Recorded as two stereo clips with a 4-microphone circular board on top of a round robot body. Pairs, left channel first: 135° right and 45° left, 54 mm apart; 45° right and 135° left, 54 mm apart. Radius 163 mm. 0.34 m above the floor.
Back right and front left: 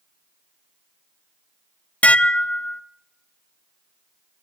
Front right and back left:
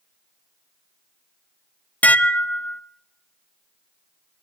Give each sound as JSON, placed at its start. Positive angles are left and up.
{"t": 2.0, "sound": "dishes clattering", "azimuth_deg": -90, "distance_m": 0.6}